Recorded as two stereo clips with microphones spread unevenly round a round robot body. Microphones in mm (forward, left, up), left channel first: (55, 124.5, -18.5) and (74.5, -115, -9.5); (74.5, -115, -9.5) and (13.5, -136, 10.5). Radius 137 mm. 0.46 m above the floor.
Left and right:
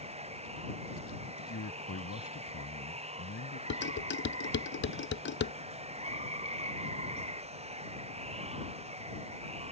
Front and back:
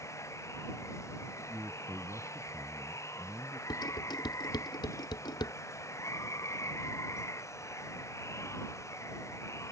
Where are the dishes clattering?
50° left.